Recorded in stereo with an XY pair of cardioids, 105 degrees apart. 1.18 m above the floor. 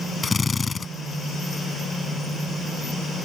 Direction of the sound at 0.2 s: 30° left.